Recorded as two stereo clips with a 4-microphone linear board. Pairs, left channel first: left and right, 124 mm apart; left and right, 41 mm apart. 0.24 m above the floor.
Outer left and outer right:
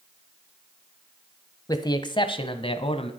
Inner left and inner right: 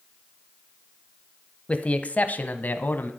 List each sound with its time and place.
1.7 s a man speaking: 30° left (ahead or behind), 1.2 m; by 3.1 s 50° left (ahead or behind), 1.7 m